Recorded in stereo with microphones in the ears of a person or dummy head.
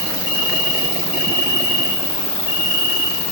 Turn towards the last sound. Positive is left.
turn(degrees=35)  # may be behind; listen again after turning